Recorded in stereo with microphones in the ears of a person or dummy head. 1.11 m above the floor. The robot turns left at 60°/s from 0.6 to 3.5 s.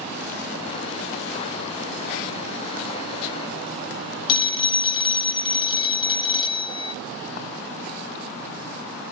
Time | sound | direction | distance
4.3 | a phone ringing | 25° left (ahead or behind) | 0.6 m